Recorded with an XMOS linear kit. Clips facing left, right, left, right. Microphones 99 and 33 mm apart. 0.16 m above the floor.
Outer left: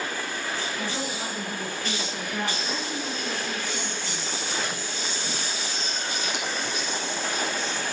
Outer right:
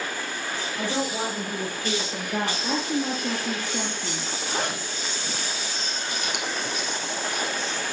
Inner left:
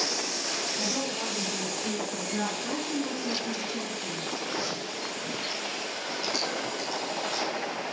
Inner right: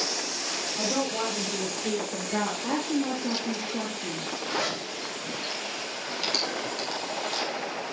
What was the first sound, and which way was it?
A woman speaking, 65° right (ahead or behind).